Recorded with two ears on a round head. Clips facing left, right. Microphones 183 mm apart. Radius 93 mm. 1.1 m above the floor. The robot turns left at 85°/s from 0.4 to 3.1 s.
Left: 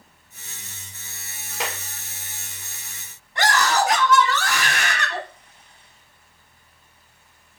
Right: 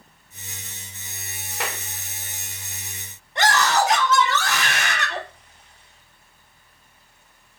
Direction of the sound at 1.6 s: Centre (ahead or behind).